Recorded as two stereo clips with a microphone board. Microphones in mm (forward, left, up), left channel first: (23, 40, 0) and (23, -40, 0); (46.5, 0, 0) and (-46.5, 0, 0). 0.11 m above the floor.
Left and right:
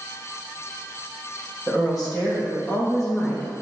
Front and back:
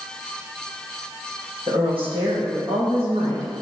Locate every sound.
1.7 s a woman speaking: 175° right, 4.5 m; by 3.5 s straight behind, 6.5 m